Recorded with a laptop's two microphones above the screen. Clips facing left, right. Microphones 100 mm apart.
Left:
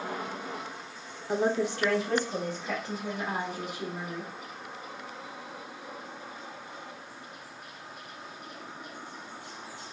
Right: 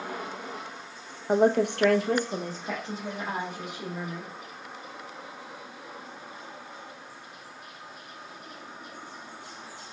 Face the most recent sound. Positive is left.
turn(degrees=-15)  # may be behind; listen again after turning